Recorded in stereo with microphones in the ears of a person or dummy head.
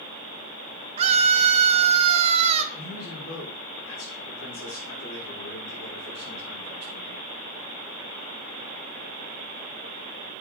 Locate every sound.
1.0 s a scream: 30° right (ahead or behind), 0.7 m
2.7 s a man speaking: 85° left, 5 m